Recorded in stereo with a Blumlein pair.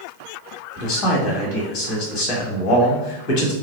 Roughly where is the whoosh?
No whoosh in this recording.